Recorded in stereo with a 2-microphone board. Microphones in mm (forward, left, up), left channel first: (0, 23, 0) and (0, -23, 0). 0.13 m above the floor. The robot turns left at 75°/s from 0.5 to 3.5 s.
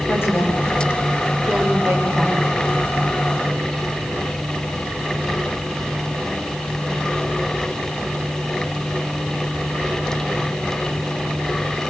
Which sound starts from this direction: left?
A woman speaking, at 0.1 s.